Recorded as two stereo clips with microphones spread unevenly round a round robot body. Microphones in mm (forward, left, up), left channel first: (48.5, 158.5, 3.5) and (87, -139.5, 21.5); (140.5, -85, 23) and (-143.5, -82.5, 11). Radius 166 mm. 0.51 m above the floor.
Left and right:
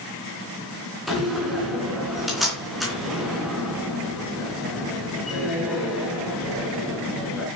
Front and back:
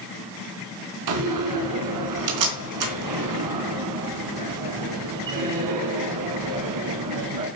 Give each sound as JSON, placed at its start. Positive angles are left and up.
{"t": 1.1, "sound": "a door slam", "azimuth_deg": -175, "distance_m": 3.5}